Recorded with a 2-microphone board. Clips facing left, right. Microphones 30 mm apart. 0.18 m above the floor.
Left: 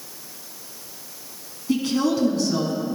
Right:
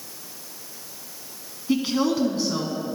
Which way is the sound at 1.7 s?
15° right (ahead or behind).